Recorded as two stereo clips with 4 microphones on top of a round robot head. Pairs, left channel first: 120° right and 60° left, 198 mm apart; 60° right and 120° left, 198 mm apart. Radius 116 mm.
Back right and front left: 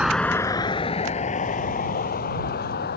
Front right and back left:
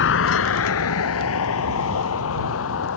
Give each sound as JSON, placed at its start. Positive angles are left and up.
{"t": 0.0, "sound": "a vehicle", "azimuth_deg": -30}